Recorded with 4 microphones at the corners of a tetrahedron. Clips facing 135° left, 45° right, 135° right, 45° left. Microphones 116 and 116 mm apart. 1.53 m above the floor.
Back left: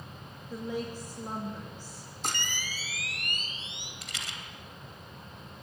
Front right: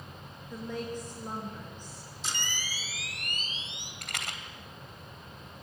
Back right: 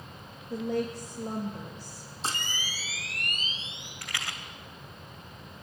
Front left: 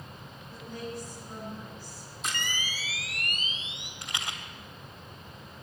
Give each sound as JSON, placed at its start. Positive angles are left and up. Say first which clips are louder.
{"t": 0.5, "sound": "a woman speaking", "louder": "back left 1 dB, back right 9 dB", "azimuth_deg": -145, "distance_m": 3.5}
{"t": 2.2, "sound": "a camera shutter", "louder": "back left 3 dB, even", "azimuth_deg": 170, "distance_m": 3.0}
{"t": 4.0, "sound": "a rattle", "louder": "front right 4 dB, front left 1 dB", "azimuth_deg": -20, "distance_m": 2.5}